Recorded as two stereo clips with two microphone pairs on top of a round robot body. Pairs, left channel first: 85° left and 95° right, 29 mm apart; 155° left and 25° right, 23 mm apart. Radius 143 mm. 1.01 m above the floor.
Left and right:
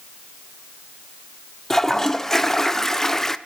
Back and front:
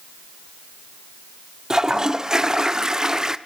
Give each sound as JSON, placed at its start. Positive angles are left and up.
{"t": 1.7, "sound": "a toilet flushing", "azimuth_deg": 25, "distance_m": 0.8}